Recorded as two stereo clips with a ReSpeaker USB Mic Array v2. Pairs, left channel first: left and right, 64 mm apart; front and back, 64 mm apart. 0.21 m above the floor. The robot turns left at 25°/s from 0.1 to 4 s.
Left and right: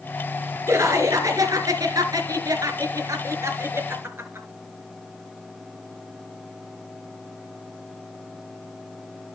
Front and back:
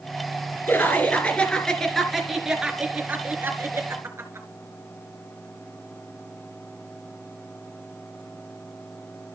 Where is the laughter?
55° right, 3 m; by 4.5 s 135° right, 3 m.